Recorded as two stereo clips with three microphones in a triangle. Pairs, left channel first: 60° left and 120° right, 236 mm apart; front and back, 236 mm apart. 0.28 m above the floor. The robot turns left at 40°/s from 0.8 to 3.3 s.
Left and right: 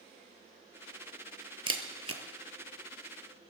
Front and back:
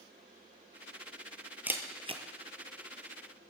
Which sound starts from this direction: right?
A camera shutter, at 1.7 s.